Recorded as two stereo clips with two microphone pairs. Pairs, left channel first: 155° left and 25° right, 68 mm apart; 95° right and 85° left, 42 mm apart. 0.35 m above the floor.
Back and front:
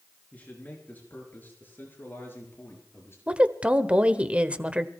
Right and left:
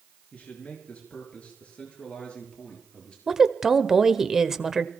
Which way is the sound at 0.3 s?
145° right.